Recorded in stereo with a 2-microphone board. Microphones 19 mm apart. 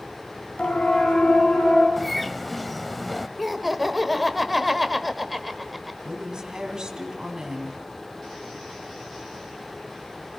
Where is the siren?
55° left (ahead or behind), 3 m.